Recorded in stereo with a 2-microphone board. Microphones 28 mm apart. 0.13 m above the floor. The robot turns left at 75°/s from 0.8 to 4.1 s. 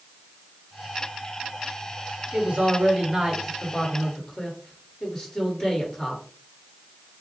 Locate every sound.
2.3 s a man speaking: 65° right, 2.5 m; by 6.2 s 160° left, 2.5 m